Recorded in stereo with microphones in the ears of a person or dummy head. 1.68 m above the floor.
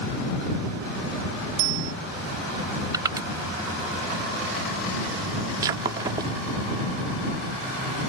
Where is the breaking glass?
15° right (ahead or behind).